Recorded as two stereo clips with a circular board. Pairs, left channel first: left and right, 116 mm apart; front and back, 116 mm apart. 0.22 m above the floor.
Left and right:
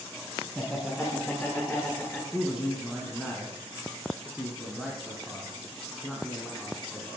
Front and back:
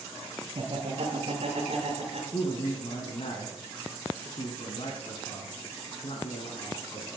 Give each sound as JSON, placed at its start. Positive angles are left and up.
{"t": 0.6, "sound": "laughter", "azimuth_deg": -175, "distance_m": 2.5}
{"t": 2.3, "sound": "a man speaking", "azimuth_deg": 0, "distance_m": 2.0}